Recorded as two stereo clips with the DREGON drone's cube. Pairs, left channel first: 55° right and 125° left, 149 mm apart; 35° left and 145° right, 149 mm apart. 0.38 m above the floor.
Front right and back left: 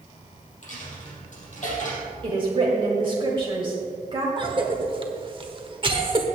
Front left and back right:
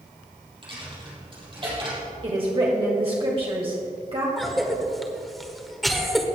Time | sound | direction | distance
0.6 | a dropped coin | 90° right | 3.5 m
2.2 | a woman speaking | 170° left | 1.7 m
4.4 | a cough | 125° left | 1.3 m